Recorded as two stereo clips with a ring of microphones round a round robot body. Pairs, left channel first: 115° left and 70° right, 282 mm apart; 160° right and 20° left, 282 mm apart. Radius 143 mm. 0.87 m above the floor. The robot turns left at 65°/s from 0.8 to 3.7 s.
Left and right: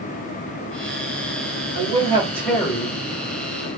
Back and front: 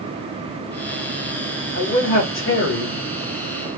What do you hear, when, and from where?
1.7 s a man speaking: 110° right, 1.2 m; by 3.7 s 125° left, 1.2 m